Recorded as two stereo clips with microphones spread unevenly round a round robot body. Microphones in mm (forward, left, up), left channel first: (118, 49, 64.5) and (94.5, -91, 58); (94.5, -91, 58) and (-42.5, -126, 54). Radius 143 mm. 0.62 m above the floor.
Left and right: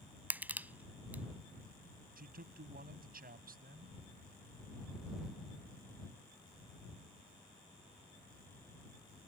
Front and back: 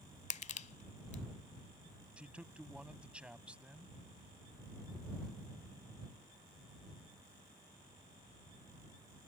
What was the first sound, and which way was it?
Crushing, 20° right.